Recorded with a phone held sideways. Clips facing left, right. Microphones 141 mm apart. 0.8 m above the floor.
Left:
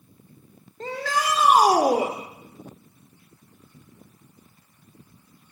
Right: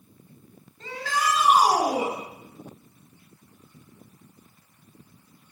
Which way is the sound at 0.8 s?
65° left (ahead or behind).